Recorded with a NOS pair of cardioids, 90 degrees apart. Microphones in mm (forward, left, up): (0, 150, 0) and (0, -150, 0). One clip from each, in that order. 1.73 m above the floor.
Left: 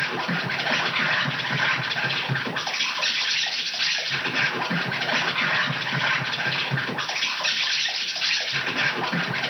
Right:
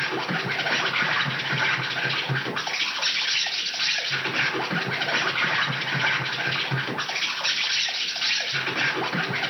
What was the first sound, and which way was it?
An insect, 5° left.